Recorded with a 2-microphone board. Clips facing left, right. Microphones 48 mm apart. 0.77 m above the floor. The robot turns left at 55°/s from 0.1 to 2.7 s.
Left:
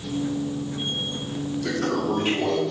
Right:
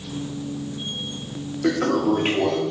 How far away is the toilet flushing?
About 1.1 m.